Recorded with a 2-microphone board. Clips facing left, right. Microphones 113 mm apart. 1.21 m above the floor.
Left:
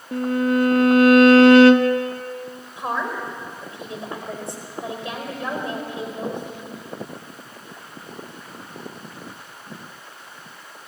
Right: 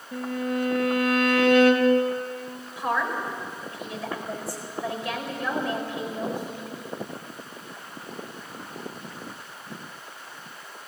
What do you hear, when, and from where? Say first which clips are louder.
0.1 s a violin: left 8 dB; 70° left (ahead or behind), 1.2 m
2.8 s a woman speaking: even; 25° left (ahead or behind), 4.5 m